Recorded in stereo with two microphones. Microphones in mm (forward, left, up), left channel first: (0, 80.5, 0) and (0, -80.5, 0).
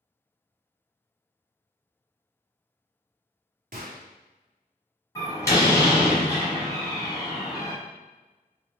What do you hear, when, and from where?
3.7 s a gunshot: 65° right (ahead or behind), 0.8 m
5.2 s a door slam: 20° left (ahead or behind), 1.6 m